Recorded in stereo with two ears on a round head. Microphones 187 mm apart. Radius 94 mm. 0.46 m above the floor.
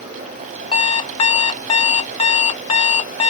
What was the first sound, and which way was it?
An alarm clock, 25° left (ahead or behind).